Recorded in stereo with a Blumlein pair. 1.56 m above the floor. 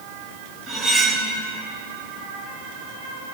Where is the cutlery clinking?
20° right, 3 m.